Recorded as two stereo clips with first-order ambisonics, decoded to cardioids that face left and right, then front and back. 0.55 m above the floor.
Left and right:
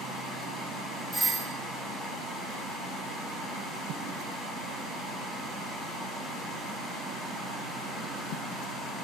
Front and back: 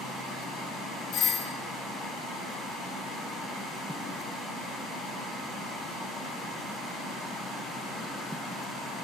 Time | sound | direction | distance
1.1 | a doorbell | straight ahead | 2 m